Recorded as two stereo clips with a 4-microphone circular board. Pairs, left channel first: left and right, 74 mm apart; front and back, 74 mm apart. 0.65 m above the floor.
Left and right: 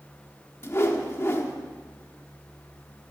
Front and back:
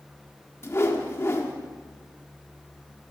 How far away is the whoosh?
About 1.5 m.